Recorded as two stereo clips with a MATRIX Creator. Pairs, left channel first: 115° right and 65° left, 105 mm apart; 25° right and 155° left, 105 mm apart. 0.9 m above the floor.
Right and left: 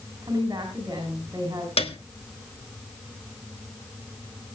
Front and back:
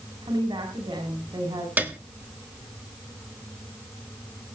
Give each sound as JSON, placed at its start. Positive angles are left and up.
{"t": 0.2, "sound": "a woman speaking", "azimuth_deg": 125, "distance_m": 5.0}
{"t": 1.8, "sound": "a piano", "azimuth_deg": -130, "distance_m": 1.4}